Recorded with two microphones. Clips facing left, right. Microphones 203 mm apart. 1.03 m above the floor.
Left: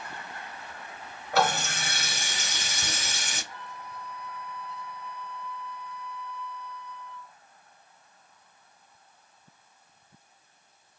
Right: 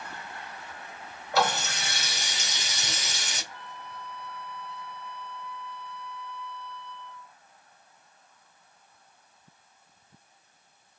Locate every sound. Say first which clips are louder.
1.3 s a running tap: left 1 dB; 50° left (ahead or behind), 1.4 m
3.5 s a flute: left 1 dB; 35° right (ahead or behind), 1.0 m